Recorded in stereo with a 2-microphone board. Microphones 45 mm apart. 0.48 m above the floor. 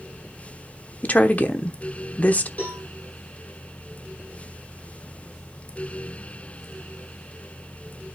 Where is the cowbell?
40° left (ahead or behind), 6.5 m.